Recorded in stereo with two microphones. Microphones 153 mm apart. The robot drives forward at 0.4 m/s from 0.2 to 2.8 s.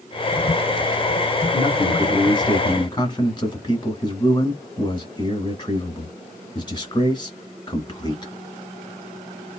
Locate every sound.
1.5 s a man speaking: 30° left (ahead or behind), 1.3 m